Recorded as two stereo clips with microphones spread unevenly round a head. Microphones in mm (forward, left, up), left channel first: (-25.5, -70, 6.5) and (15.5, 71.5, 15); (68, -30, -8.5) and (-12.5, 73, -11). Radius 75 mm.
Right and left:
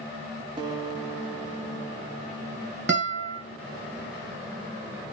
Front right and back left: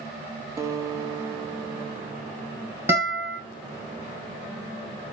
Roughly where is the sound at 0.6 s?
Left.